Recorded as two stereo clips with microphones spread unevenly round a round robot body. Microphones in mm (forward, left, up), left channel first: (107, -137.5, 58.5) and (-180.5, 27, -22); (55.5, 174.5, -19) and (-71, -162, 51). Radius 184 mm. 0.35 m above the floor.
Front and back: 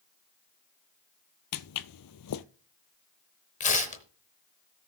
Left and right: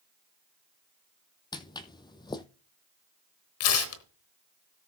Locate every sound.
1.5 s footsteps: 15° right, 0.5 m
3.6 s tearing paper: 50° left, 0.9 m